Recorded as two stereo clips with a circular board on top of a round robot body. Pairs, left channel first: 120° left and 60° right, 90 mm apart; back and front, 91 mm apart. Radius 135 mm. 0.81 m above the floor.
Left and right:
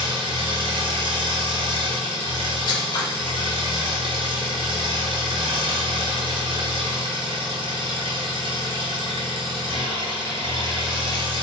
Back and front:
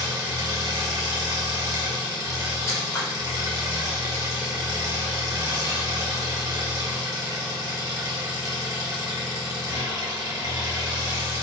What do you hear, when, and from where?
0.0 s an engine running: 45° right, 0.9 m
2.7 s scissors: 130° left, 0.8 m